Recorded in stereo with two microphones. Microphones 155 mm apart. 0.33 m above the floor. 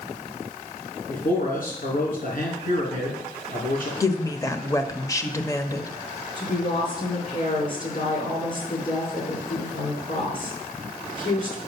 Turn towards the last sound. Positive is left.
turn(degrees=60)  # may be behind; listen again after turning